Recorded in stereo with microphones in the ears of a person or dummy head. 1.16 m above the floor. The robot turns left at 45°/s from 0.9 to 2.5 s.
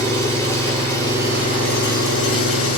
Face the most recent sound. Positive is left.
turn(degrees=100)